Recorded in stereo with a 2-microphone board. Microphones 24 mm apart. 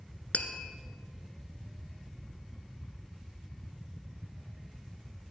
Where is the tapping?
65° left (ahead or behind), 1.0 m.